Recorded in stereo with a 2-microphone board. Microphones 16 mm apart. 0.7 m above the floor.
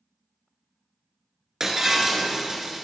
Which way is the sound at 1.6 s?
25° right (ahead or behind).